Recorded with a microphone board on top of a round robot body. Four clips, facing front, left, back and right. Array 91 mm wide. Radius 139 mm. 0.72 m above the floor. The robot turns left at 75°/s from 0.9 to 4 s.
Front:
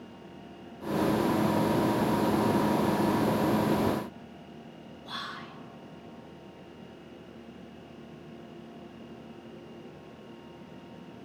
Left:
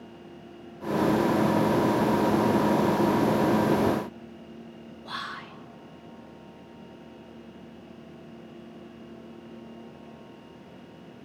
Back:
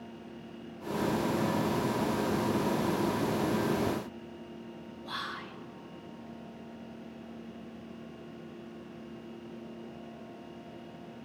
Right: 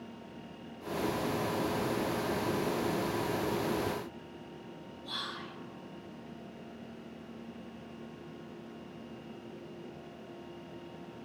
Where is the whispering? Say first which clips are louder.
Left 5 dB, even; 100° left, 0.9 m.